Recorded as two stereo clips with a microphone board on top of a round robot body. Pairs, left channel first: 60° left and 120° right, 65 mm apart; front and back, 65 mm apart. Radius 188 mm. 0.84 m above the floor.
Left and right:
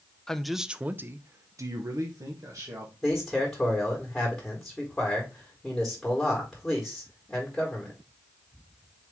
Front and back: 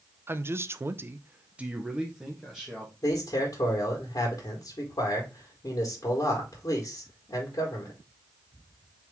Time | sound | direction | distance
0.3 | a man speaking | 140° left | 0.7 m
3.0 | a man speaking | 25° right | 1.6 m